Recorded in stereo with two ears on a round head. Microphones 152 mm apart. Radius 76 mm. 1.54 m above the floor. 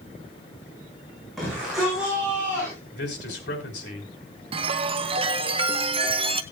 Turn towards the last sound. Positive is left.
turn(degrees=-35)  # may be behind; listen again after turning